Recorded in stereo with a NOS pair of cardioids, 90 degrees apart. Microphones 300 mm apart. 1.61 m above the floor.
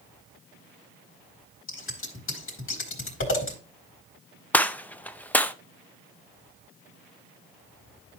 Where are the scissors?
50° left, 4 m.